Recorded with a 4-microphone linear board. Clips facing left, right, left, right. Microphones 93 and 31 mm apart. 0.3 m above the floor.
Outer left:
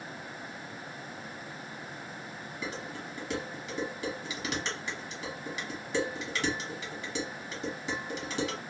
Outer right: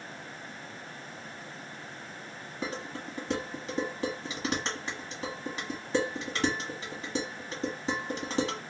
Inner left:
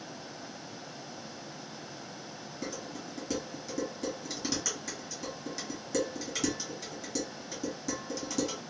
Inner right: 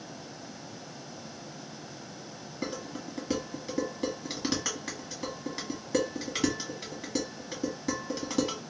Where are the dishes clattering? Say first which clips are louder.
Outer right 3 dB, inner right 4 dB; 35° right (ahead or behind), 1.5 m.